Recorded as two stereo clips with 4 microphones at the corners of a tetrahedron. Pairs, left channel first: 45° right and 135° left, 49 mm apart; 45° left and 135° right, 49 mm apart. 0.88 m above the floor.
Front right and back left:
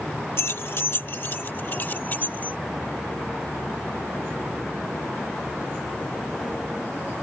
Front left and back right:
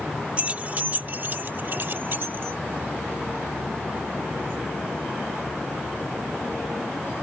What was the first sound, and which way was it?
Keys jangling, 75° right.